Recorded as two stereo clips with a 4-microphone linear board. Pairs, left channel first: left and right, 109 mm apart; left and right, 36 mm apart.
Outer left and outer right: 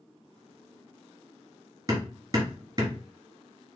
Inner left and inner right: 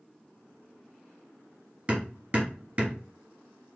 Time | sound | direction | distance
1.9 | hammering | 35° right (ahead or behind) | 1.7 m